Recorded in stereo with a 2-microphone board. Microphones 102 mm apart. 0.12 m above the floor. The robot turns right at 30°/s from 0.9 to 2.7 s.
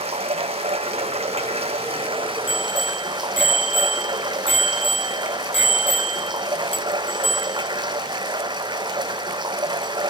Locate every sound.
0.0 s running water: 100° right, 0.8 m; by 10.1 s 45° right, 0.8 m
2.5 s a bicycle bell: 70° left (ahead or behind), 3.5 m; by 9.9 s 75° left (ahead or behind), 3.5 m